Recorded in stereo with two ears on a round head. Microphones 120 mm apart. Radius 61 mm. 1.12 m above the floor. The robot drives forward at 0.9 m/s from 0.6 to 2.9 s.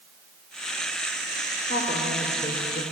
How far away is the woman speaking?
About 3.5 m.